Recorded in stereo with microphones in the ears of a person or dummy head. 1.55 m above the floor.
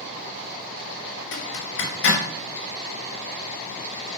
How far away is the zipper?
About 1.7 m.